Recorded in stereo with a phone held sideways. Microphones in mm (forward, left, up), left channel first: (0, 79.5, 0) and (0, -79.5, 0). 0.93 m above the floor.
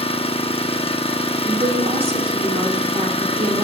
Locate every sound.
0.0 s an engine running: 40° left (ahead or behind), 0.8 m
1.4 s a woman speaking: 40° right (ahead or behind), 2.5 m